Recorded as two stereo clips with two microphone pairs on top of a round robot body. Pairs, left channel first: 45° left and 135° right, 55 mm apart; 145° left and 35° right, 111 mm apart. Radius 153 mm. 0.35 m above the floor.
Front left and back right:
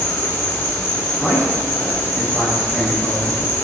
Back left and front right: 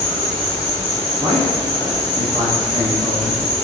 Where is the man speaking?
60° right, 1.2 m.